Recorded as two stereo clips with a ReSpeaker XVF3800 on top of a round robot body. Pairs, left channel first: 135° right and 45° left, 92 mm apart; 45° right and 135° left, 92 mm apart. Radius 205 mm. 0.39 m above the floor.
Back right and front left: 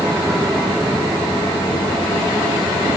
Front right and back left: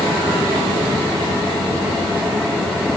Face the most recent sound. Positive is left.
No sound to turn to.